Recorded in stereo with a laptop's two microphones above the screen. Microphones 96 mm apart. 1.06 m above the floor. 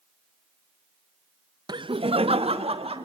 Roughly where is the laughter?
Right.